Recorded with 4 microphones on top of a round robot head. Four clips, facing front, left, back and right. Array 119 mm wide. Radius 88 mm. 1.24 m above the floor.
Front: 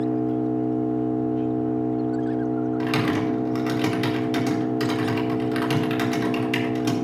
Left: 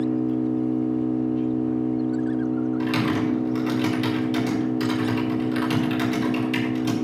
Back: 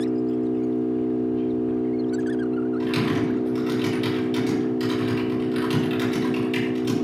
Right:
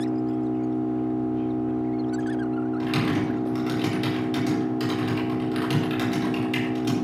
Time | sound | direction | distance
0.0 | an engine running | 35° right | 5.5 m
2.8 | typing on a keyboard | straight ahead | 4 m